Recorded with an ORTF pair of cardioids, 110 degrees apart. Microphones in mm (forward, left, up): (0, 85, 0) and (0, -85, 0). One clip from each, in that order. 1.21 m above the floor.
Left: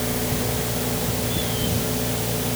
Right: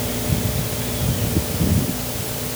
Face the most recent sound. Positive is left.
No sound to turn to.